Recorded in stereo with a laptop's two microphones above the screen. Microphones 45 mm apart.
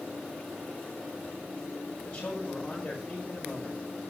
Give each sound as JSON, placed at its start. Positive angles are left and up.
{"t": 2.0, "sound": "a man speaking", "side_deg": 20, "distance_m": 6.0}